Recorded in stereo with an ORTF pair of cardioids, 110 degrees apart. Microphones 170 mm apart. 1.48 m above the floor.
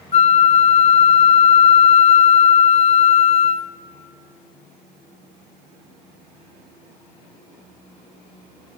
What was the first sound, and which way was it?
A flute, 40° left.